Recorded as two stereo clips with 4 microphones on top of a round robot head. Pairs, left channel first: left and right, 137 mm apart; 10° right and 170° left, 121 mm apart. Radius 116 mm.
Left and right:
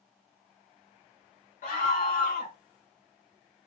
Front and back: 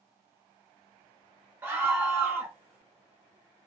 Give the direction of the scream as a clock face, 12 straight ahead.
9 o'clock.